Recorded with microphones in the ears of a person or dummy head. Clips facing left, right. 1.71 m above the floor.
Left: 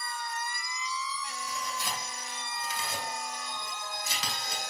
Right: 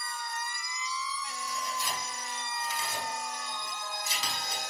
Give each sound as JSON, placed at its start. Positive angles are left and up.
{"t": 1.5, "sound": "tearing paper", "side_deg": 60, "distance_m": 2.0}